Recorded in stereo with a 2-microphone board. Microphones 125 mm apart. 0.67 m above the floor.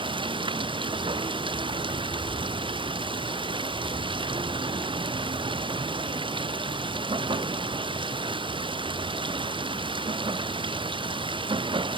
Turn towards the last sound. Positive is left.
turn(degrees=-40)  # may be behind; listen again after turning